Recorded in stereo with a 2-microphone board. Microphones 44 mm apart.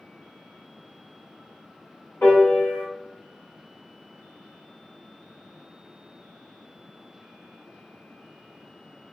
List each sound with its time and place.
2.2 s a piano: 60° left (ahead or behind), 1.8 m